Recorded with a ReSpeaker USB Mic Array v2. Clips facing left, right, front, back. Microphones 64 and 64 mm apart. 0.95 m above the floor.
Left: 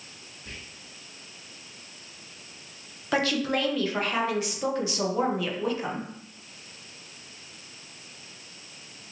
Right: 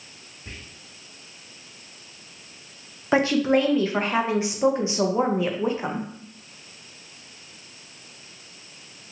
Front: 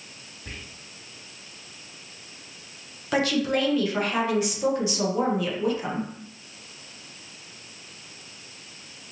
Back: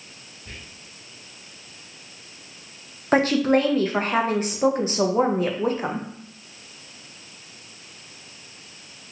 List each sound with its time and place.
0.5 s whispering: 25° right, 1.4 m
3.1 s a woman speaking: 145° right, 0.6 m